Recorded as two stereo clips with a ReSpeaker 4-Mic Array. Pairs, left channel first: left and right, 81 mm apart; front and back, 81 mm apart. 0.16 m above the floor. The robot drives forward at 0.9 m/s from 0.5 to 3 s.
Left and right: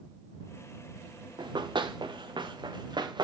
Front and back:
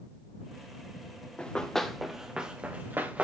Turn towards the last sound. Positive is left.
turn(degrees=-105)